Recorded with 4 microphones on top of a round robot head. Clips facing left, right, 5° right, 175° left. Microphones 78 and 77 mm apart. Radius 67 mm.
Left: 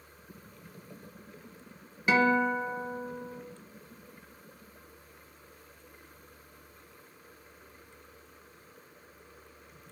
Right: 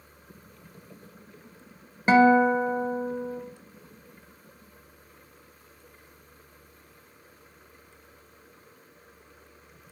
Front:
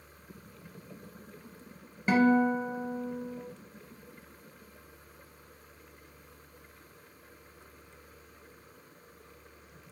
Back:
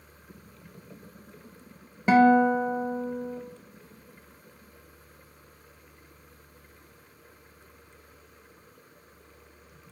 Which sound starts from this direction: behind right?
A guitar, at 2.1 s.